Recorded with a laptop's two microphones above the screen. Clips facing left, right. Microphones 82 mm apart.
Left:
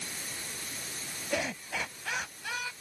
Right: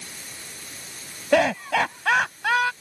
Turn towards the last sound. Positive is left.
turn(degrees=-75)  # may be behind; listen again after turning